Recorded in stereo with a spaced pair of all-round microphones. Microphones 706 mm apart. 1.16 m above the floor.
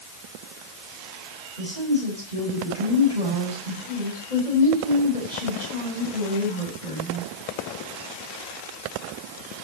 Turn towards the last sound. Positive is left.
turn(degrees=75)  # may be behind; listen again after turning